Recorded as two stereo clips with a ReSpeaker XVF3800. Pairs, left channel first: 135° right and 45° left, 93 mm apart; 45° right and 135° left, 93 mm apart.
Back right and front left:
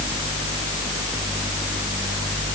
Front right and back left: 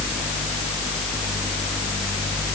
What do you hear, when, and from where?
Only background noise.